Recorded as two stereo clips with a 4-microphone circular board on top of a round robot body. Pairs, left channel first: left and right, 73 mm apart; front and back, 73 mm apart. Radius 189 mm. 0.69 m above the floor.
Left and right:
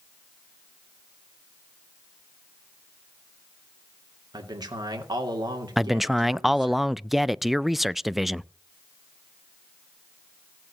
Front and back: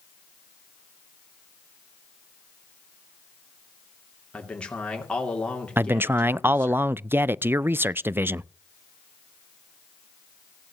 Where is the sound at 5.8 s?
175° right, 0.5 m.